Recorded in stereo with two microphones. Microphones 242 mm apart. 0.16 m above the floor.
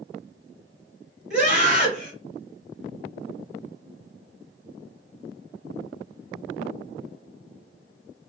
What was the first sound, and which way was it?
A scream, 25° left (ahead or behind).